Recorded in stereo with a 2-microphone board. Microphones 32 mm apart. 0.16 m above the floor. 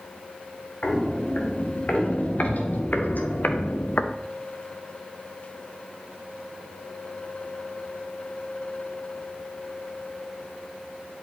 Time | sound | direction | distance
0.8 | footsteps | 45° left (ahead or behind) | 3 m